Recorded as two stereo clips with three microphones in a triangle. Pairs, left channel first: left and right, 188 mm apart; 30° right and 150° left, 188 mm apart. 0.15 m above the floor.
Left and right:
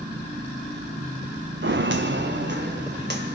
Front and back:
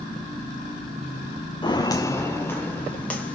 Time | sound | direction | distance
1.6 | footsteps | 95° right | 0.6 m